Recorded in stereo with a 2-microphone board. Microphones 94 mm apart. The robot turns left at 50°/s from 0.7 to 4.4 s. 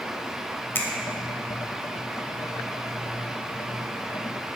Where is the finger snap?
20° left (ahead or behind), 0.8 m; by 0.9 s 25° left (ahead or behind), 0.8 m.